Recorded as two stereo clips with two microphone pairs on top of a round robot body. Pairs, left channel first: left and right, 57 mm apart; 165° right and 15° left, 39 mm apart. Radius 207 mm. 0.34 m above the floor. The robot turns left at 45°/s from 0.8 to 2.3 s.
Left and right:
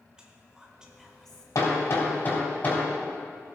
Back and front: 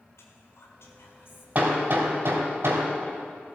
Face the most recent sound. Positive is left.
turn(degrees=25)